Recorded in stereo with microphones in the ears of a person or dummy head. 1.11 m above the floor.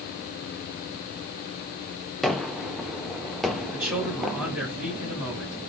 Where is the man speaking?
10° right (ahead or behind), 3 m.